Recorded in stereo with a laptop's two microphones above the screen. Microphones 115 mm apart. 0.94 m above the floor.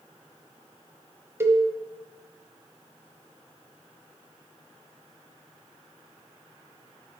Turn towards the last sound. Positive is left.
turn(degrees=-20)  # may be behind; listen again after turning